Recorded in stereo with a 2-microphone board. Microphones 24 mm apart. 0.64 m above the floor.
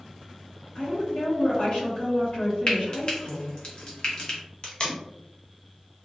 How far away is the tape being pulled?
About 0.9 m.